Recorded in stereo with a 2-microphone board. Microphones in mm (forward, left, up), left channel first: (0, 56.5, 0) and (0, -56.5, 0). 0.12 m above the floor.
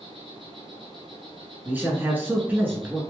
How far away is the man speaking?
About 1.2 m.